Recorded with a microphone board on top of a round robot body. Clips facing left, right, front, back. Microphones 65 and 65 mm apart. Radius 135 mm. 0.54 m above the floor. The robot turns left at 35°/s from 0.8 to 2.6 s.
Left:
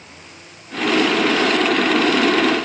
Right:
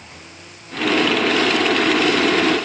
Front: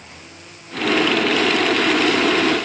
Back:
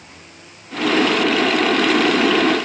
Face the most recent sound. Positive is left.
No sound to turn to.